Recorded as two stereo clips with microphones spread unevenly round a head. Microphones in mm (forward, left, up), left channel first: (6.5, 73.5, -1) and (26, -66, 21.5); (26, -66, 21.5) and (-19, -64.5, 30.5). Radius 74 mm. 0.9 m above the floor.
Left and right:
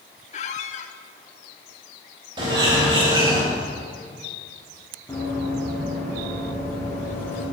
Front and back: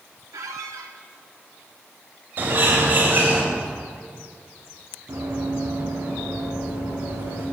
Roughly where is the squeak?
Behind left.